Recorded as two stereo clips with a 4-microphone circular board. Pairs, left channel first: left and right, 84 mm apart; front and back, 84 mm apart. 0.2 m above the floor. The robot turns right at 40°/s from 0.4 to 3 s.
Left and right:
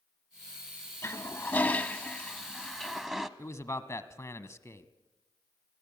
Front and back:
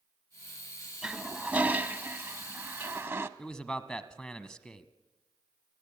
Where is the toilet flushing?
110° left, 1.0 m; by 3.3 s 170° right, 1.0 m.